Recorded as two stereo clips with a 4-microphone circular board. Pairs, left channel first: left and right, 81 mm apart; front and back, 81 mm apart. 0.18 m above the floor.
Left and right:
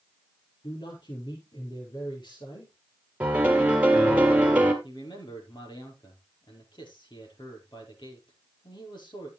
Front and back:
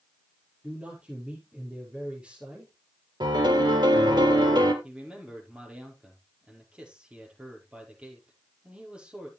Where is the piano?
165° right, 2 m.